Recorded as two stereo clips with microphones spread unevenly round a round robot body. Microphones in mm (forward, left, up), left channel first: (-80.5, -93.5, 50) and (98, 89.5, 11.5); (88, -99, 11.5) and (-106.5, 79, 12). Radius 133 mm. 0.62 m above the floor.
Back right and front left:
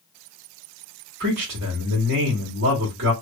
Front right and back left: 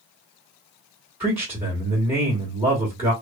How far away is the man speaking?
About 1.4 m.